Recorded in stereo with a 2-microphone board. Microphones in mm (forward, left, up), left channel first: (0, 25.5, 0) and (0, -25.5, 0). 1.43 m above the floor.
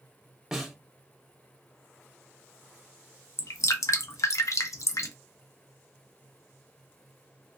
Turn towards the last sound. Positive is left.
turn(degrees=75)  # may be behind; listen again after turning